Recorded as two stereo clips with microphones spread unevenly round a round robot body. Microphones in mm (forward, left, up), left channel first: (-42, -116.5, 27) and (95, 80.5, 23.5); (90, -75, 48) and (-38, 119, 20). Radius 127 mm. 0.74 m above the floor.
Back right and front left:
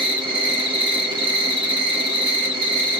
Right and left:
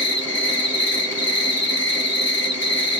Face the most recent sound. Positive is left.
turn(degrees=-15)